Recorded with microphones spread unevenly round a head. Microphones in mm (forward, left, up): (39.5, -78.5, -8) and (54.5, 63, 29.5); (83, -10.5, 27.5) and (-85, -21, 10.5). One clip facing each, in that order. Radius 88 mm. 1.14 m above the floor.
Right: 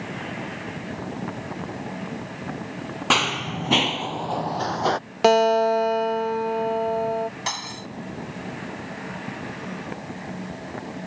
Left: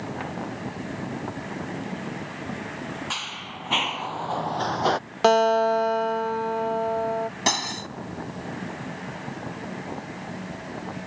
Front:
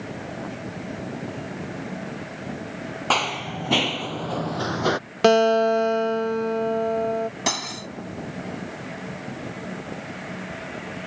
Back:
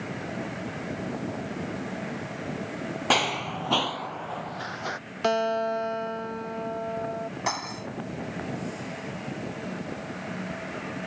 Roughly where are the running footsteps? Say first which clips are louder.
Right 12 dB, front 1 dB; right.